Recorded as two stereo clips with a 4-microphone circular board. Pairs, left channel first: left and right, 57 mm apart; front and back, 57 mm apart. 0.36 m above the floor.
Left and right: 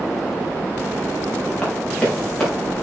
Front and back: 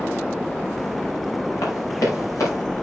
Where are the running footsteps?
15° left, 9 m; by 2.6 s 10° left, 9.5 m.